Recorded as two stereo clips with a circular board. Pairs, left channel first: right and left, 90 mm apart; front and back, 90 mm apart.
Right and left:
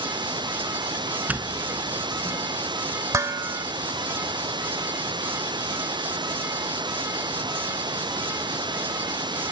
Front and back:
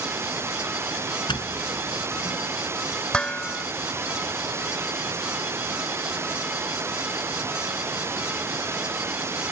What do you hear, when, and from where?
0.0 s running water: 120° left
1.3 s a doorbell: 20° left
3.1 s dishes clattering: 70° left